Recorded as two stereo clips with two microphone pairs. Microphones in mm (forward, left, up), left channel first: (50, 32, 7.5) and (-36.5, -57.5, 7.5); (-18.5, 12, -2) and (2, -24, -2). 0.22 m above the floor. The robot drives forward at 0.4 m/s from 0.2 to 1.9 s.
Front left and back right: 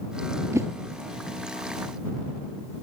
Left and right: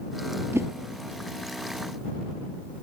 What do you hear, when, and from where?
0.5 s a whoosh: 65° right, 1.0 m; by 0.7 s 70° right, 1.0 m